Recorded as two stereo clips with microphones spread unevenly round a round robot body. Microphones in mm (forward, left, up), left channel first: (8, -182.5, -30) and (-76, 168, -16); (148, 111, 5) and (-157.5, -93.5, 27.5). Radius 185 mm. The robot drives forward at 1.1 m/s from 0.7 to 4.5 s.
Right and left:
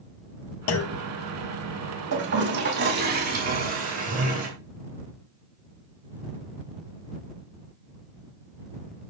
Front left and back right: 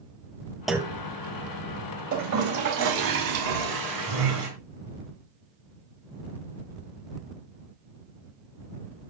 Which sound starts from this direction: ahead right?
A clunk, at 0.7 s.